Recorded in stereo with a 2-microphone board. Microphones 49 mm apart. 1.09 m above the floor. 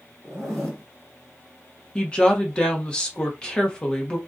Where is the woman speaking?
20° left (ahead or behind), 0.8 m.